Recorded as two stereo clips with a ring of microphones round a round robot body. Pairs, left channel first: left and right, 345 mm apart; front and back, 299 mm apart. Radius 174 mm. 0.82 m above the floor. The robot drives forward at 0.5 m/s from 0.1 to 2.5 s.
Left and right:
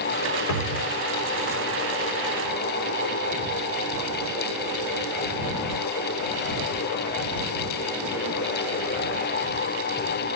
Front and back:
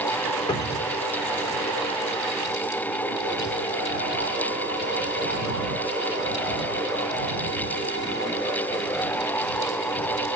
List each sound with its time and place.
0.5 s a cupboard door: 75° left, 3 m; by 0.9 s 80° left, 3 m